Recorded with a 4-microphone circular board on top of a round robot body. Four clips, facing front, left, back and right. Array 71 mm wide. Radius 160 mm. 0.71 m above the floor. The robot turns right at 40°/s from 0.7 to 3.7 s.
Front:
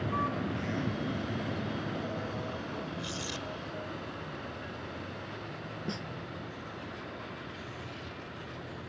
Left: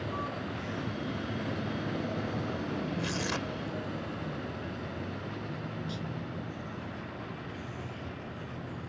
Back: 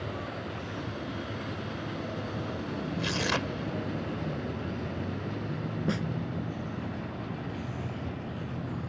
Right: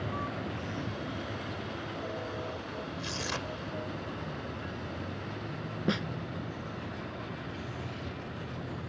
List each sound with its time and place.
0.0 s a vehicle: straight ahead; by 8.9 s straight behind
3.0 s tearing paper: 165° left; by 3.6 s 170° right
5.9 s a snare drum: 115° right